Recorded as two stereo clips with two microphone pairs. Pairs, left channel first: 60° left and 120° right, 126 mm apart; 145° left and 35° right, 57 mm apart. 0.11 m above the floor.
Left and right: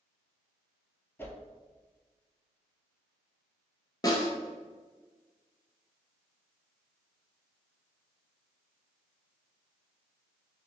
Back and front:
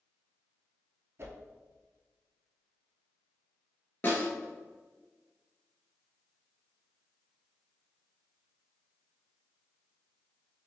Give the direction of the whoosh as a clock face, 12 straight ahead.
12 o'clock.